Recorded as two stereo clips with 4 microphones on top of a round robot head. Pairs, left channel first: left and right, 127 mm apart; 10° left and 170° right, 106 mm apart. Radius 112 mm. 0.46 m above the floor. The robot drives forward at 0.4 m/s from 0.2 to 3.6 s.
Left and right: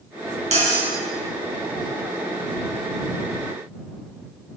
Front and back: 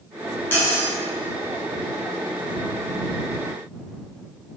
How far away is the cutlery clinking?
About 1.4 m.